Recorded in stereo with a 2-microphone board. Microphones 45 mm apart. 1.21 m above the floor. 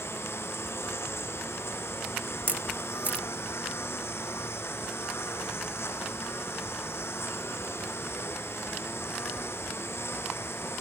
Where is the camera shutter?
40° right (ahead or behind).